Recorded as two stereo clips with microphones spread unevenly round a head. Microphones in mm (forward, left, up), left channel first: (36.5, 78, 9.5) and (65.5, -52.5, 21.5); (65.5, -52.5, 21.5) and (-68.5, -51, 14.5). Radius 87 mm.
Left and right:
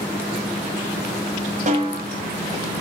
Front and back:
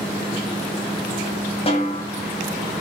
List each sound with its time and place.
1.7 s a snare drum: 45° right, 7 m